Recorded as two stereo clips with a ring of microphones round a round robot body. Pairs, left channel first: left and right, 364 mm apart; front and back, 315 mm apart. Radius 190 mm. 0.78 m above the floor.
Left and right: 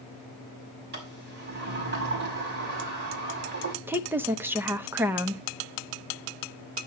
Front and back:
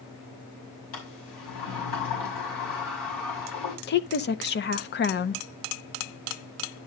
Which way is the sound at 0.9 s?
25° right.